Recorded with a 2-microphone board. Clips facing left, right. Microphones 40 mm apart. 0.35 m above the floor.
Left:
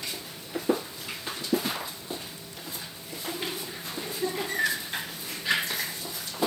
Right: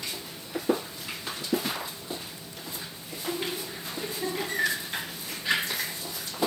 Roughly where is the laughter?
Right.